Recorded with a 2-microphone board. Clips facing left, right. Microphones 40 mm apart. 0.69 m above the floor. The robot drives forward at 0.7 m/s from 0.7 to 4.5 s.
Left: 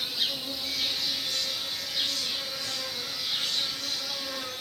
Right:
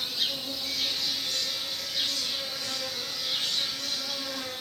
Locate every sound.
0.0 s an insect: 5° left (ahead or behind), 1.1 m; by 4.6 s centre (ahead or behind), 3.5 m